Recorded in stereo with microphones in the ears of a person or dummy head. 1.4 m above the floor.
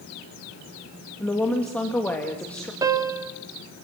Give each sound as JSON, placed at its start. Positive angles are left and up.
{"t": 1.2, "sound": "a woman speaking", "side_deg": 10, "distance_m": 2.5}
{"t": 2.8, "sound": "a piano", "side_deg": -20, "distance_m": 1.9}